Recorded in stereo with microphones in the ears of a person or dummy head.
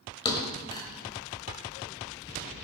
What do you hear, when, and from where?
0.2 s a thud: 25° left (ahead or behind), 1.5 m